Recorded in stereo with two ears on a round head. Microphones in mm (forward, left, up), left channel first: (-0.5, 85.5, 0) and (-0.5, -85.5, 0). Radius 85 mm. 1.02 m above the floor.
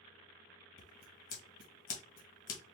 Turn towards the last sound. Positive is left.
turn(degrees=50)  # may be behind; listen again after turning